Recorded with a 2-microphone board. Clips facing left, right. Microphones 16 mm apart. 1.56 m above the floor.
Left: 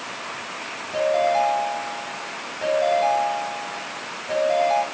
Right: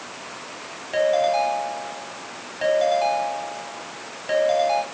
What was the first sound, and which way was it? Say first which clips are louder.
A ringtone: even; 45° right (ahead or behind).